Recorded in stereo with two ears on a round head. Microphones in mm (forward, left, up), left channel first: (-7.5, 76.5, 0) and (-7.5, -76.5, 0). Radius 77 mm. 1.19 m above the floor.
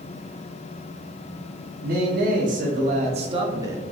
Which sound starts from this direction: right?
A man speaking, at 1.8 s.